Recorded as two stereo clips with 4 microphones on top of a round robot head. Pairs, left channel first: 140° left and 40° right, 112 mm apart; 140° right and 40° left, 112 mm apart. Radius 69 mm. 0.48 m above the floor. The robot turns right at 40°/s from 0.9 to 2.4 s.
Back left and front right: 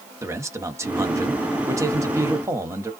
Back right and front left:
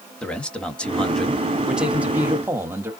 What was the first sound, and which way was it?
A man speaking, 70° right.